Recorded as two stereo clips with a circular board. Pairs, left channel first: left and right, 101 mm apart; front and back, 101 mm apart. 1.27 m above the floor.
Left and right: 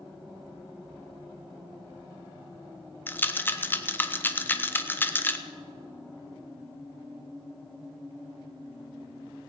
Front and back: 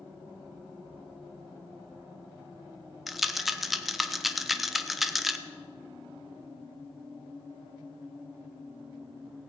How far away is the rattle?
About 0.6 m.